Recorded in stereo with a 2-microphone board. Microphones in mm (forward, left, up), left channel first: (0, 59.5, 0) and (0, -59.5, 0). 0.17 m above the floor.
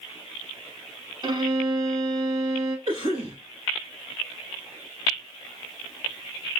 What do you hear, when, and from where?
1.2 s a violin: 40° right (ahead or behind), 0.7 m
2.9 s a cough: 45° right (ahead or behind), 2.5 m